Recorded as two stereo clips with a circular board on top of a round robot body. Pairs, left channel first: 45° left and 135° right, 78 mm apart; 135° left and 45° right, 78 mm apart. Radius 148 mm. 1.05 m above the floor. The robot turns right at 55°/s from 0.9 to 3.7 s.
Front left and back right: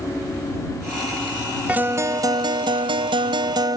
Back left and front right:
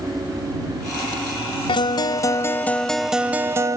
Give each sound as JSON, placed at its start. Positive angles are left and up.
{"t": 1.7, "sound": "a guitar", "azimuth_deg": 155}